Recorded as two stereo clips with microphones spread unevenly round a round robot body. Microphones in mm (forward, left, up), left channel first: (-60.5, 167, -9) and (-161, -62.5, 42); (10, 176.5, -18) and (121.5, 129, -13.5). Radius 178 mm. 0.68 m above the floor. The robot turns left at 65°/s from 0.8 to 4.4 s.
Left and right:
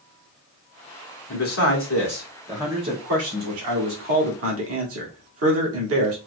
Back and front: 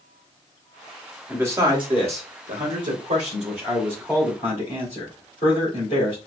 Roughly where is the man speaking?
Ahead left.